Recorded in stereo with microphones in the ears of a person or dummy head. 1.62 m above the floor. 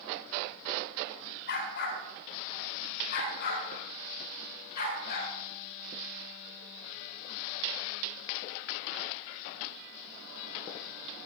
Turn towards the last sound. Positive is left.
turn(degrees=50)  # may be behind; listen again after turning